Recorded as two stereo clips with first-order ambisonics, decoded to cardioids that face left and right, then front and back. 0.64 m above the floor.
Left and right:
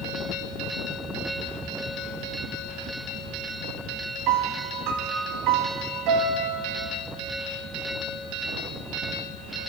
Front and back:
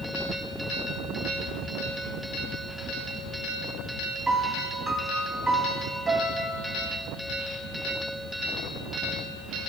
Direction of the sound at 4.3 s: 100° right.